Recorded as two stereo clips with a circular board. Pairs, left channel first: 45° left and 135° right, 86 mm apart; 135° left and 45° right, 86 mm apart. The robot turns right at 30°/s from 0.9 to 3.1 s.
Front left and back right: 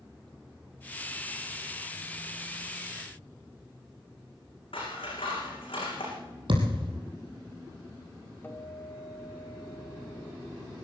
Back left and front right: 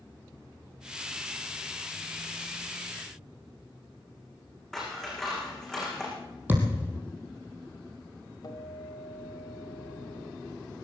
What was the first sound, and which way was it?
Scissors, 50° left.